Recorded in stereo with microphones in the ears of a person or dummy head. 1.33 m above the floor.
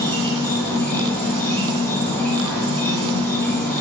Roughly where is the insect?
Centre.